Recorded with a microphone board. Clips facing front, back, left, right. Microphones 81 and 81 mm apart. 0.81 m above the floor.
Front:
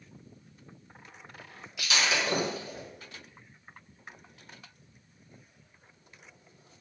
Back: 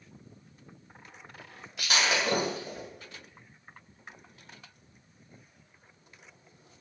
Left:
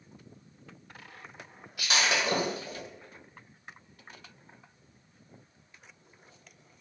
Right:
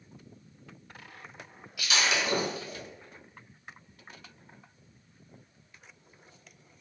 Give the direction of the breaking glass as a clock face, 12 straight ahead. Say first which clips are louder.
Back 1 dB, left 1 dB; 8 o'clock.